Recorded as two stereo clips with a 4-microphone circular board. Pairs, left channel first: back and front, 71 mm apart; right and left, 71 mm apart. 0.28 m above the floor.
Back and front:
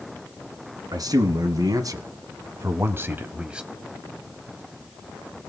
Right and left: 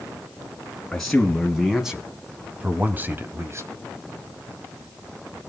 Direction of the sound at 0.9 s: 5° right.